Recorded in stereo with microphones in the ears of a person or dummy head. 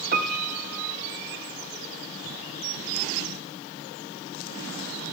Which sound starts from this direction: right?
A piano, at 0.1 s.